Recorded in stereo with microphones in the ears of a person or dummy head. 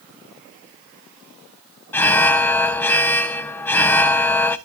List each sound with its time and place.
1.9 s an alarm: 10° left (ahead or behind), 0.7 m